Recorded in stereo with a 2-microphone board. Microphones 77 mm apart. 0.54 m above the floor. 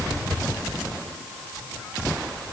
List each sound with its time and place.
Only background noise.